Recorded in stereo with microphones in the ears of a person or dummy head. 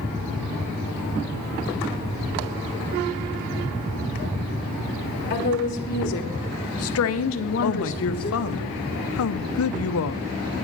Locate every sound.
5.3 s a woman speaking: 50° left (ahead or behind), 1.8 m; by 8.6 s 10° left (ahead or behind), 1.1 m
7.6 s a man speaking: 70° left (ahead or behind), 0.7 m